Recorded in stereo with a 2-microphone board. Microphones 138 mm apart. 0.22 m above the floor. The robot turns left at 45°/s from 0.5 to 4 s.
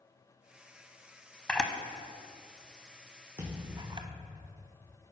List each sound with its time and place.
1.5 s a camera shutter: 10° left (ahead or behind), 0.6 m; by 4.1 s 35° right (ahead or behind), 0.6 m
3.4 s a thud: 40° right (ahead or behind), 2.0 m; by 4.2 s 15° right (ahead or behind), 2.0 m